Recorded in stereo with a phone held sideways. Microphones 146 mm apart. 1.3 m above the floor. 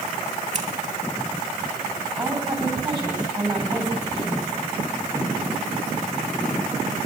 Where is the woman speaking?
30° right (ahead or behind), 7.5 m.